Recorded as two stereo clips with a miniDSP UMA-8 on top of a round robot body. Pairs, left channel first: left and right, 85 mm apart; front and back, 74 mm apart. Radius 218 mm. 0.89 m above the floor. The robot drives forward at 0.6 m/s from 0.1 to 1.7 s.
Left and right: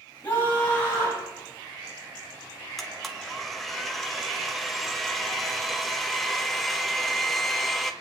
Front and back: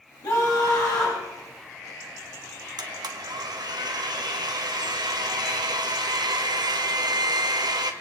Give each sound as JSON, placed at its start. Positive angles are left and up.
{"t": 0.2, "sound": "a scream", "azimuth_deg": 25, "distance_m": 6.5}
{"t": 2.8, "sound": "a blender", "azimuth_deg": 180, "distance_m": 1.6}